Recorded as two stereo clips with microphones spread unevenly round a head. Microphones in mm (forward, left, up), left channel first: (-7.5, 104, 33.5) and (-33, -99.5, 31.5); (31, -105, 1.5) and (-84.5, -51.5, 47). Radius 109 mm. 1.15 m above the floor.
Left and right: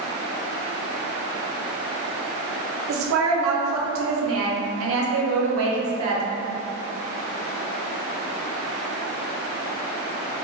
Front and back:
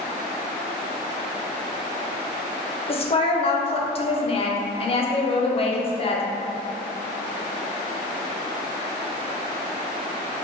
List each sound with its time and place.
2.9 s a woman speaking: 70° right, 0.7 m